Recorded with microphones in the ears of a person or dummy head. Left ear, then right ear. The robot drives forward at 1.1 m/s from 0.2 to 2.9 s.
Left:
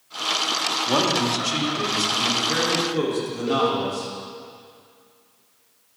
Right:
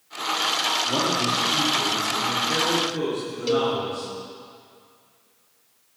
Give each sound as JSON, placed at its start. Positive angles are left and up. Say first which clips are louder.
{"t": 0.9, "sound": "a man speaking", "louder": "left 2 dB", "side_deg": 80, "distance_m": 2.5}
{"t": 3.5, "sound": "a cowbell", "louder": "even", "side_deg": -50, "distance_m": 1.1}